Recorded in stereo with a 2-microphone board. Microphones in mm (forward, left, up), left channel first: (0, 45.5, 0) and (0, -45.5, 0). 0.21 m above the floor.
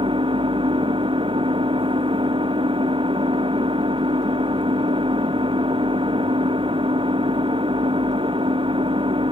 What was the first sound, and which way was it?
An engine running, 70° right (ahead or behind).